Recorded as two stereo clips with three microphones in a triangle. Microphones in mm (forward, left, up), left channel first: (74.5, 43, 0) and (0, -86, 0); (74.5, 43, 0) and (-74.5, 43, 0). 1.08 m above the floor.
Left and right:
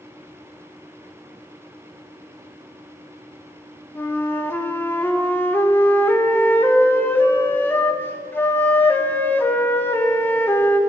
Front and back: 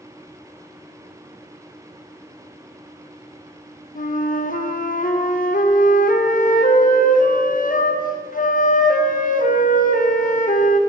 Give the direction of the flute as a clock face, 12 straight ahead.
1 o'clock.